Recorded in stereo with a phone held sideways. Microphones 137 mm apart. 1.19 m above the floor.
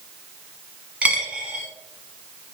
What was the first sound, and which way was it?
A dropped coin, 10° right (ahead or behind).